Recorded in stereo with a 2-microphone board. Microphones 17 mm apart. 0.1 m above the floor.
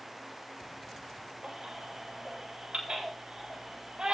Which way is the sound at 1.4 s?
80° right.